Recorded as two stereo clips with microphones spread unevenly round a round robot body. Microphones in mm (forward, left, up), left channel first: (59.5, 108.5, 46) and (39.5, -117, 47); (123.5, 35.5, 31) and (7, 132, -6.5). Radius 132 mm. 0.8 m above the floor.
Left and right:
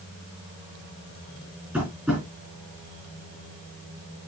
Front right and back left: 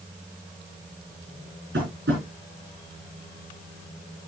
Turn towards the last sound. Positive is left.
turn(degrees=180)